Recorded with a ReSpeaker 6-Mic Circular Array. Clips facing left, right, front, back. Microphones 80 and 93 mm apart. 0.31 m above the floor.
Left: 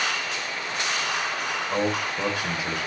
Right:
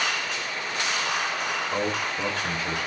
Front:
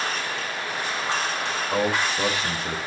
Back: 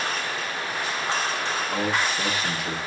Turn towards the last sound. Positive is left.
turn(degrees=25)